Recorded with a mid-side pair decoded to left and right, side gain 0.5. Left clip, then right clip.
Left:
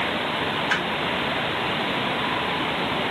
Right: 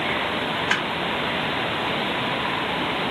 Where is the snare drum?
35° right, 1.7 m.